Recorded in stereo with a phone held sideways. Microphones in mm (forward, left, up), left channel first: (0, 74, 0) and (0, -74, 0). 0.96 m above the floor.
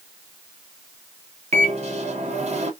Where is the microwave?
50° right (ahead or behind), 1.0 m.